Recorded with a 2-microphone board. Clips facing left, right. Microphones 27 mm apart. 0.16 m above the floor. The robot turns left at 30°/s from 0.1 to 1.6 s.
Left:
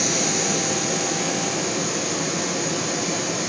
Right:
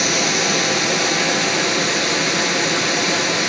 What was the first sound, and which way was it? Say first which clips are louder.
Running water: right 5 dB; 45° right.